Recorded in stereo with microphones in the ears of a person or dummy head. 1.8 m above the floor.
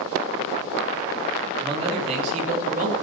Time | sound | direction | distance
1.6 | a man speaking | 25° right (ahead or behind) | 3.5 m